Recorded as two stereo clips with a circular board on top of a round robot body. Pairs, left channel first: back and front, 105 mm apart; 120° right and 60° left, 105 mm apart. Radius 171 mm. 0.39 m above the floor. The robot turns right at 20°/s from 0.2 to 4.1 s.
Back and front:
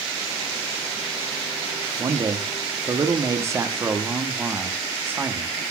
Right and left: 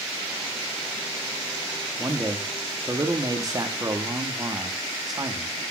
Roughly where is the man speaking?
Ahead.